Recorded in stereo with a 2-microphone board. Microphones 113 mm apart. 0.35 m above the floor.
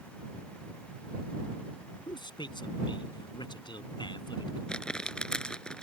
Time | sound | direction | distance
2.1 | a man speaking | 45° left (ahead or behind) | ?
4.7 | crumpling | 5° left (ahead or behind) | ?